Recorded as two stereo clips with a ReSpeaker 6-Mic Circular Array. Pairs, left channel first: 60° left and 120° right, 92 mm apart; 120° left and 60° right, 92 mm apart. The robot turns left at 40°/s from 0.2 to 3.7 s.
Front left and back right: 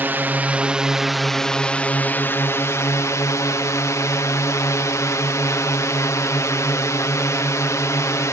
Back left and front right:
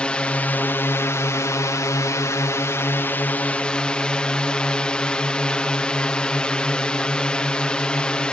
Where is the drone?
170° right; by 8.3 s 50° left.